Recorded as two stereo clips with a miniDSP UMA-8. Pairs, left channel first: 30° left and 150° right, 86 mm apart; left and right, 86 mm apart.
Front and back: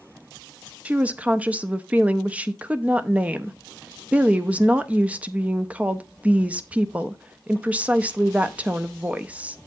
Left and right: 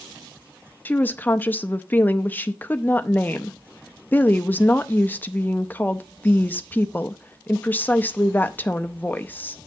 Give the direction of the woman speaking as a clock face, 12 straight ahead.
7 o'clock.